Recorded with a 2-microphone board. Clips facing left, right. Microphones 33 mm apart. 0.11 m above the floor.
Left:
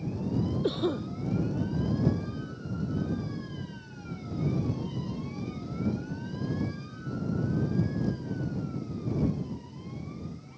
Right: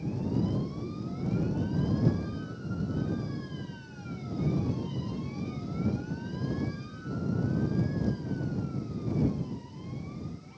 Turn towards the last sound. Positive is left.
turn(degrees=65)  # may be behind; listen again after turning